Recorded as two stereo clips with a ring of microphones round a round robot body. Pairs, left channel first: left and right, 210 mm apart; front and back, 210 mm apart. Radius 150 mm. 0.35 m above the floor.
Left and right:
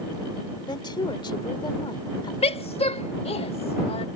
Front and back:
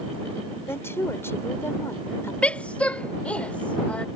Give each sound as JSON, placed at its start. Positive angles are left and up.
{"t": 0.7, "sound": "a woman speaking", "azimuth_deg": 60}
{"t": 2.4, "sound": "a woman speaking", "azimuth_deg": 75}